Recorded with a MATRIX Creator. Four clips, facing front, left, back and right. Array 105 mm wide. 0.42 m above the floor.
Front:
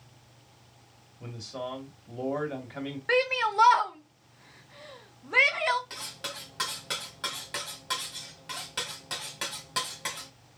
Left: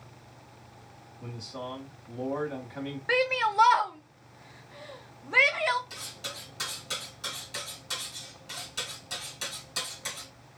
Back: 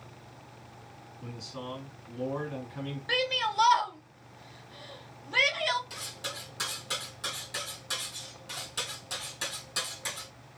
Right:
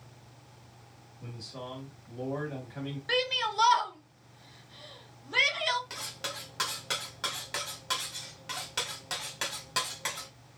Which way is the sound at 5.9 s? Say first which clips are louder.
Right 2 dB, even; 55° right.